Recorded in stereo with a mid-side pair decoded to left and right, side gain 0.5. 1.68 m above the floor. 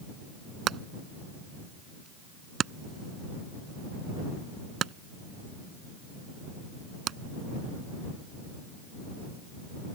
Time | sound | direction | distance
0.7 | hammering | 55° right | ?